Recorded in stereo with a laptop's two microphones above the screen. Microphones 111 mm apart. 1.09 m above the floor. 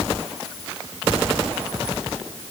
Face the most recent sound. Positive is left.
No sound to turn to.